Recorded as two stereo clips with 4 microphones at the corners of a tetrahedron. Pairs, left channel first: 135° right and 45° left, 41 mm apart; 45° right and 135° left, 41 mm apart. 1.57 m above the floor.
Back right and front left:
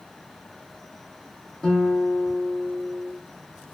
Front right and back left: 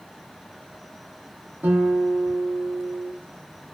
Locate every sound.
1.6 s a guitar: 145° left, 0.9 m